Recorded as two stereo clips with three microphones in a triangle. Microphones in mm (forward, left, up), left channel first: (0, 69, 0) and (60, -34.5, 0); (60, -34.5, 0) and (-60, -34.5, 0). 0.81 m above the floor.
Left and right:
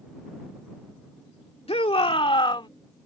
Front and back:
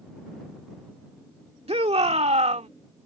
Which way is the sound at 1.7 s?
150° left.